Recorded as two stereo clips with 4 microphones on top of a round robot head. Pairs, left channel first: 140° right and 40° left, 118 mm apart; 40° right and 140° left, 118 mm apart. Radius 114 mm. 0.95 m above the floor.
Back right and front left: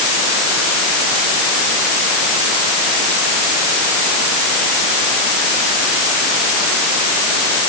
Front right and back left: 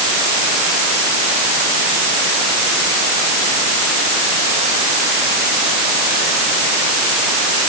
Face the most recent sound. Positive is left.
No sound to turn to.